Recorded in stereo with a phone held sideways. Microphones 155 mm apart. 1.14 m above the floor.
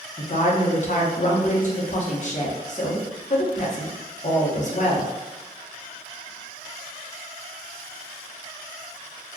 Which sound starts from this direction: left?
A woman speaking, at 0.2 s.